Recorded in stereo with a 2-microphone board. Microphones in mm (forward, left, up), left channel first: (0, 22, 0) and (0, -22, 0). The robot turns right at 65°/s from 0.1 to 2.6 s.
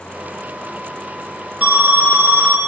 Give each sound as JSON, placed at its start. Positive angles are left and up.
{"t": 1.6, "sound": "an alarm", "azimuth_deg": -120, "distance_m": 0.9}